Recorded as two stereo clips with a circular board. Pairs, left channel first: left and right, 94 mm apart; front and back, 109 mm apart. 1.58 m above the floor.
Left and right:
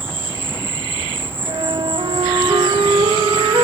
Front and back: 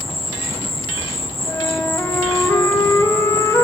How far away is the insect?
About 0.8 m.